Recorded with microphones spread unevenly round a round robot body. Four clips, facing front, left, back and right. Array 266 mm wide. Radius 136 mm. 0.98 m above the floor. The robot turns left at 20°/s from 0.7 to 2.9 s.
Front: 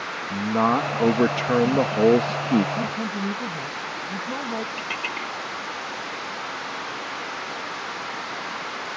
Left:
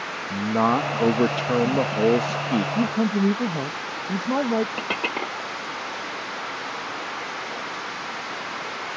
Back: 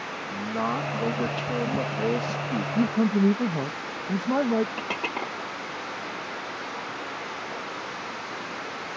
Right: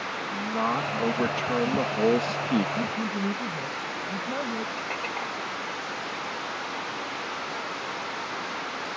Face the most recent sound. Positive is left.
turn(degrees=115)